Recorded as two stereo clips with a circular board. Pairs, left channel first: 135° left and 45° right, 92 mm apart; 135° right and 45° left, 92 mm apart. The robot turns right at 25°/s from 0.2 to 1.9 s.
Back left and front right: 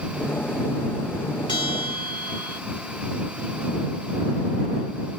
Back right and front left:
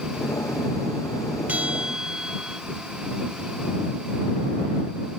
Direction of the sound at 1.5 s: 115° left.